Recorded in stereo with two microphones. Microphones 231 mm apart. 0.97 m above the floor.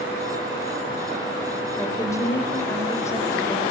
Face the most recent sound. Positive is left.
turn(degrees=10)  # may be behind; listen again after turning